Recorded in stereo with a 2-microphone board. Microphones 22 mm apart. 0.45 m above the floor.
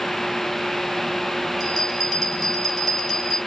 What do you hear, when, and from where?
1.6 s a bell: 10° left (ahead or behind), 2.5 m